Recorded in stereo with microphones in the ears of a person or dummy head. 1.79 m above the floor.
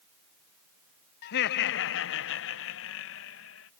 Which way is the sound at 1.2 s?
55° left (ahead or behind).